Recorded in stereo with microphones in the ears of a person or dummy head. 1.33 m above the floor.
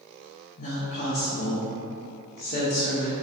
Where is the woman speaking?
45° left (ahead or behind), 0.7 m.